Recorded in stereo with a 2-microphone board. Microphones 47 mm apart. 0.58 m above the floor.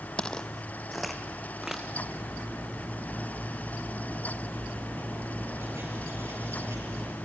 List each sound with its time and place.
0.2 s footsteps: 25° left (ahead or behind), 0.7 m; by 1.8 s 10° right (ahead or behind), 1.9 m
1.9 s cutlery clinking: 85° right, 6.5 m